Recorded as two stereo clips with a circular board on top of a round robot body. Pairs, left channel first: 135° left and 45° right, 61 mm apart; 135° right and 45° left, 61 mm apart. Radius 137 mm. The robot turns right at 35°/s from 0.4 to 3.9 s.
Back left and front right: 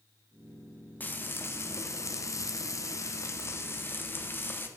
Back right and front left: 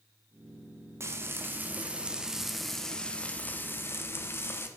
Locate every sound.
1.0 s frying: 80° left, 1.3 m; by 4.7 s straight behind, 1.3 m